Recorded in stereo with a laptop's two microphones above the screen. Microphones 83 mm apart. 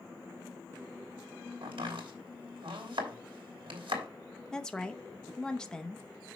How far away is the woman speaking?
About 0.7 m.